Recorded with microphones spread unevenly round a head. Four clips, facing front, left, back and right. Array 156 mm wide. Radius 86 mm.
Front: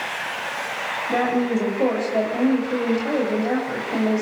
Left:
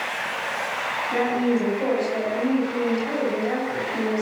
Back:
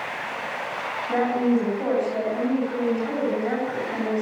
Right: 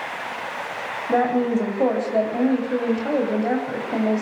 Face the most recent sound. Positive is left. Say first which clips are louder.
# right 3 dB, even
turn(degrees=-75)